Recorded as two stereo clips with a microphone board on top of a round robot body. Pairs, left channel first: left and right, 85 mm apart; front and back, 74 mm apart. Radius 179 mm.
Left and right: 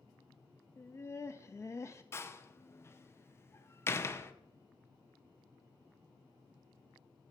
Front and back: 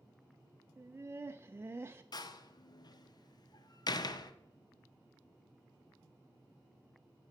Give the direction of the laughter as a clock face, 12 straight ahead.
8 o'clock.